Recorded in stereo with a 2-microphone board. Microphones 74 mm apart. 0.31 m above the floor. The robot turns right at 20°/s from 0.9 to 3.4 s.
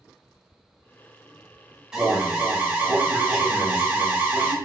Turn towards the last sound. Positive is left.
turn(degrees=-20)  # may be behind; listen again after turning